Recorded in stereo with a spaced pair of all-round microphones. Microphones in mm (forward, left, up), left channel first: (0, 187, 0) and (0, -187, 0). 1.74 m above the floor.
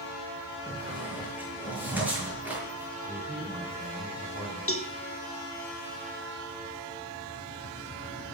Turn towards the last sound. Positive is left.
turn(degrees=40)  # may be behind; listen again after turning